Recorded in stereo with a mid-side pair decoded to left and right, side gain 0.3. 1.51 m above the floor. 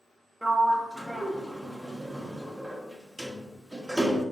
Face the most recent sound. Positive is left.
turn(degrees=-20)